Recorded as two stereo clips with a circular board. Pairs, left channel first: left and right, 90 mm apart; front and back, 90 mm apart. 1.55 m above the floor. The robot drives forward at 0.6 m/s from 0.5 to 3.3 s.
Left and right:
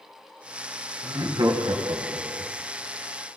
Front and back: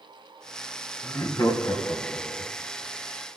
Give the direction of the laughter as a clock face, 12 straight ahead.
1 o'clock.